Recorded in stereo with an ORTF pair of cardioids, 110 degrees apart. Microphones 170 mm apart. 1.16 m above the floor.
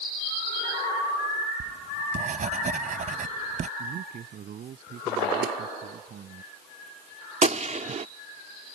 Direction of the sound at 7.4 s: 45° right.